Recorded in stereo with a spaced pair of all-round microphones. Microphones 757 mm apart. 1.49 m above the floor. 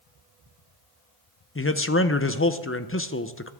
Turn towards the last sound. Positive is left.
turn(degrees=20)  # may be behind; listen again after turning